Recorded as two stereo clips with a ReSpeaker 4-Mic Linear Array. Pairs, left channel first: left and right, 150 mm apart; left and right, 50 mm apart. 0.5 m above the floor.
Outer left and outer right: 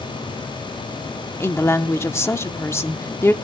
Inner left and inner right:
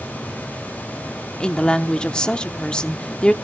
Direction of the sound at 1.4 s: 20° left (ahead or behind).